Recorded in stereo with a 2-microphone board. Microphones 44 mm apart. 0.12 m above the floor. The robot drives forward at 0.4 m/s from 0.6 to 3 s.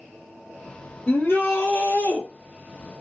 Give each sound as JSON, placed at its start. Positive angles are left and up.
{"t": 1.1, "sound": "a shout", "side_deg": 55, "distance_m": 2.0}